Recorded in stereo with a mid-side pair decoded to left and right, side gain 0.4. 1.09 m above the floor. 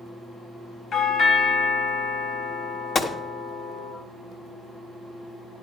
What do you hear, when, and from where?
0.9 s a doorbell: 65° left, 2 m
3.0 s a gunshot: 50° left, 1.4 m